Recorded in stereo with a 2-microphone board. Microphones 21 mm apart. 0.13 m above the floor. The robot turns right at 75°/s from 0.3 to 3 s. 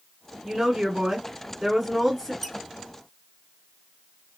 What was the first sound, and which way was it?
A woman speaking, 15° right (ahead or behind).